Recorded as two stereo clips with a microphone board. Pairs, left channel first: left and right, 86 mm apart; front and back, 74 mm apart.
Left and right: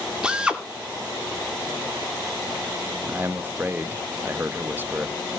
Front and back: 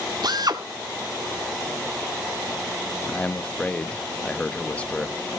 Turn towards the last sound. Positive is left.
turn(degrees=-60)